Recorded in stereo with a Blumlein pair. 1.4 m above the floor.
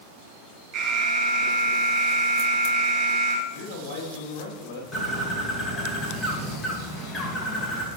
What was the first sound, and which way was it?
An alarm, 30° right.